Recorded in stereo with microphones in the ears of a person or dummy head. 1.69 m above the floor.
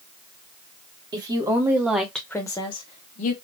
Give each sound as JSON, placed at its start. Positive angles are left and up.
{"t": 1.1, "sound": "a woman speaking", "side_deg": -25, "distance_m": 1.2}